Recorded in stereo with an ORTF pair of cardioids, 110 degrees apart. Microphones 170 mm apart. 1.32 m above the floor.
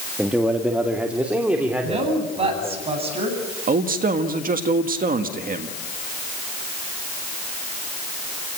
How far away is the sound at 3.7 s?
About 1.7 m.